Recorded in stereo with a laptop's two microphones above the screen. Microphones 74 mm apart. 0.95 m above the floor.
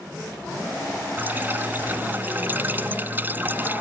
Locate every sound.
1.2 s dripping: 25° right (ahead or behind)